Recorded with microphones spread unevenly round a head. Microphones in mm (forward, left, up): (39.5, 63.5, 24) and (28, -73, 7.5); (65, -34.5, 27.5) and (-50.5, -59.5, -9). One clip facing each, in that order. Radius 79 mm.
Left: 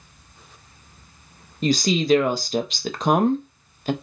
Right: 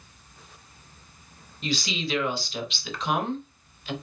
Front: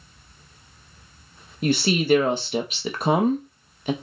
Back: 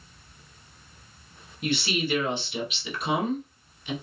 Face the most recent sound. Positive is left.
turn(degrees=50)